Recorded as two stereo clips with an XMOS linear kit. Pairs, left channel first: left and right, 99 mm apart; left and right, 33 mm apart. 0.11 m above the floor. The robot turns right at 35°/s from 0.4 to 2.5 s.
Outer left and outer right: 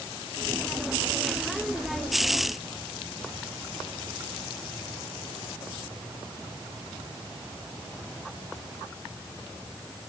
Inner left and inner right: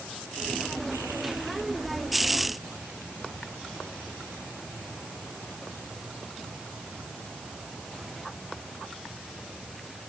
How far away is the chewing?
I don't hear chewing.